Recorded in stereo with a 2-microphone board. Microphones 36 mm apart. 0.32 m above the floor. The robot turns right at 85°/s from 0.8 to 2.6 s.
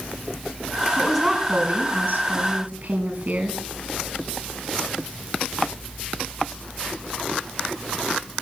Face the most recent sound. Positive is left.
turn(degrees=-50)